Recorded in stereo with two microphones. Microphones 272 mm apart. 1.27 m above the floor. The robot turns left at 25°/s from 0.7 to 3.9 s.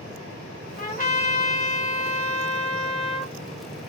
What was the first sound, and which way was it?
A trumpet, 110° left.